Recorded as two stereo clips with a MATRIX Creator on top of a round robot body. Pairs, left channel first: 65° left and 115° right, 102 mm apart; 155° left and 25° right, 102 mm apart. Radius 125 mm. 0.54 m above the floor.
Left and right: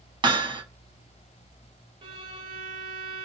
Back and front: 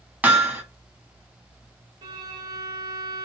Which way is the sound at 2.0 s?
75° right.